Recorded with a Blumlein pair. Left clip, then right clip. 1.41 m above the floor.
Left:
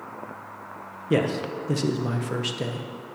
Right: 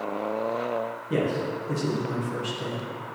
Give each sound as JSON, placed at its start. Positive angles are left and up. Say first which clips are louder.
{"t": 1.1, "sound": "a man speaking", "louder": "left 3 dB", "azimuth_deg": 65, "distance_m": 0.9}